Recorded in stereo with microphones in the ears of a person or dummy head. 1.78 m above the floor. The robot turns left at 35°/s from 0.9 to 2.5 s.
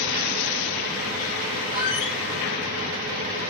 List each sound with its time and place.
1.7 s a squeak: 50° left (ahead or behind), 2.0 m; by 2.2 s 60° left (ahead or behind), 2.0 m